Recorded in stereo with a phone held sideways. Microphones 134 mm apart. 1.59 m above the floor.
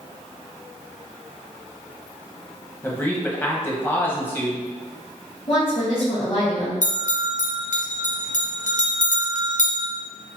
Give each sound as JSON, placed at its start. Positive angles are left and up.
{"t": 2.8, "sound": "a man speaking", "side_deg": 15, "distance_m": 1.1}
{"t": 5.5, "sound": "a woman speaking", "side_deg": 45, "distance_m": 1.8}
{"t": 6.8, "sound": "a bell", "side_deg": 70, "distance_m": 0.8}